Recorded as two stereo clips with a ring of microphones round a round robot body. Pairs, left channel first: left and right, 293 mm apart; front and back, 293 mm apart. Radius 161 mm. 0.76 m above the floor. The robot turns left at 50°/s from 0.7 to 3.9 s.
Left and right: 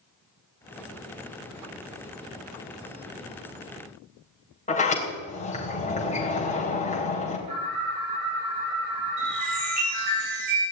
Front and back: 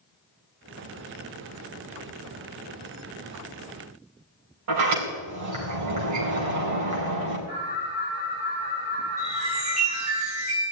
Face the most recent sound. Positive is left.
turn(degrees=-110)